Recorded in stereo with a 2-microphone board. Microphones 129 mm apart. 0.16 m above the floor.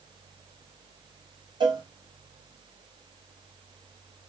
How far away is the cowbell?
About 1.1 m.